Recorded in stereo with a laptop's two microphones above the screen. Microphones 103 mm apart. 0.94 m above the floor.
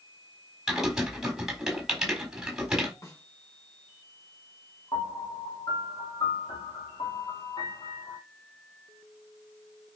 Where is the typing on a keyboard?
5° right (ahead or behind), 4 m.